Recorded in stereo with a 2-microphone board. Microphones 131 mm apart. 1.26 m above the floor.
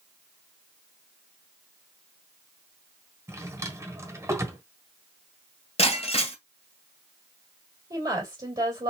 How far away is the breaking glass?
About 1.8 m.